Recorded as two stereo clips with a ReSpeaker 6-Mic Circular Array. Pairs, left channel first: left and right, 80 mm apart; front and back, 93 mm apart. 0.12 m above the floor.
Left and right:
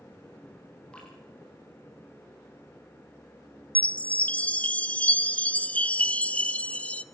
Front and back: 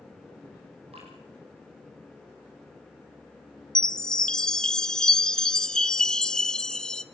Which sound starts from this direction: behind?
Dripping, at 0.9 s.